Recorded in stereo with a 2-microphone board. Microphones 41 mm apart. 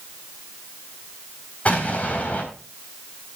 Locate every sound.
1.6 s an explosion: 35° left (ahead or behind), 3.5 m